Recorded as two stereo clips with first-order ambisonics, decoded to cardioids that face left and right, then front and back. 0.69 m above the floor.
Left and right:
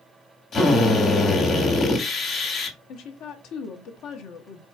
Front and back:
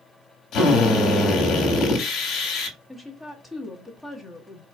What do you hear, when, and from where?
0.5 s a drill: 40° left, 1.5 m
2.9 s a woman speaking: 95° left, 1.0 m